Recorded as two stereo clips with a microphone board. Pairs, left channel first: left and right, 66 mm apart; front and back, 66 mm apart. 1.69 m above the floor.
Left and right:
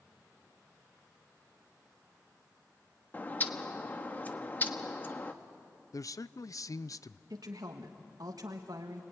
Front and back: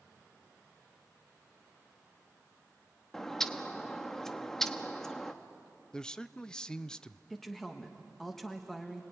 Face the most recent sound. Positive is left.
turn(degrees=-85)